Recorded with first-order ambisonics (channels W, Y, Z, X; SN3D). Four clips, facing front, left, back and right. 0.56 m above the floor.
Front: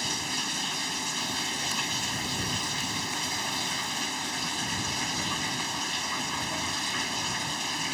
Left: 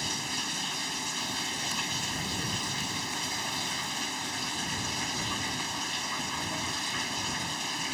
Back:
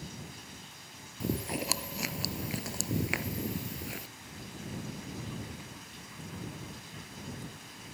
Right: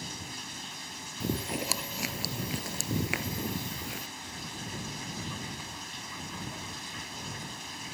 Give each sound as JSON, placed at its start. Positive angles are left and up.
{"t": 0.0, "sound": "running water", "azimuth_deg": 25}
{"t": 1.2, "sound": "chewing", "azimuth_deg": -130}